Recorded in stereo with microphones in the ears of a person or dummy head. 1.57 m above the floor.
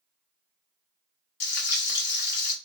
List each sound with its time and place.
1.4 s frying: 50° left (ahead or behind), 0.5 m